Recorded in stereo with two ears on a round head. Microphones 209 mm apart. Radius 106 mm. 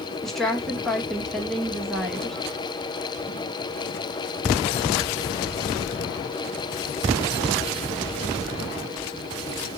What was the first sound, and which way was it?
A woman speaking, centre (ahead or behind).